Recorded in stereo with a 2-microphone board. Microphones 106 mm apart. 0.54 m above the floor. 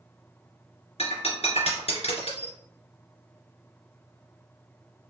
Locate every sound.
1.0 s breaking glass: 85° left, 2.5 m